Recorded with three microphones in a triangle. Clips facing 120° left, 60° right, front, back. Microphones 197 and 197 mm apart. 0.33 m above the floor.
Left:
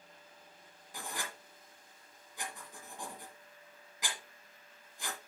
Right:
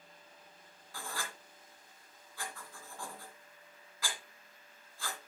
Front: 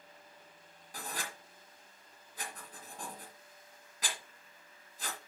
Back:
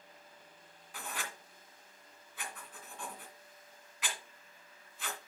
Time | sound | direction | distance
0.9 | writing | 50° left | 1.8 m